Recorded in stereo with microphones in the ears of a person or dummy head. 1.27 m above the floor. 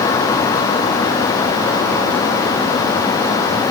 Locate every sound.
Only background noise.